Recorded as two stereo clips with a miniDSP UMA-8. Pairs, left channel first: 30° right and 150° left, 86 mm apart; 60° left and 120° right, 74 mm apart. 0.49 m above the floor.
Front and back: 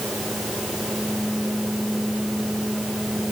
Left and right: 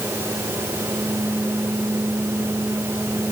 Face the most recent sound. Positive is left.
No sound to turn to.